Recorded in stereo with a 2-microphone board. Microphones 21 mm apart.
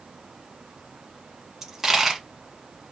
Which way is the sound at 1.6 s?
15° right (ahead or behind).